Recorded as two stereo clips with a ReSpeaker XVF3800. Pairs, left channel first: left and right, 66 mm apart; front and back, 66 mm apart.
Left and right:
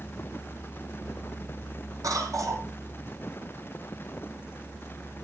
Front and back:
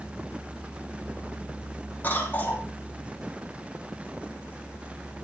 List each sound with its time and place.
2.0 s a cough: 65° right, 5.5 m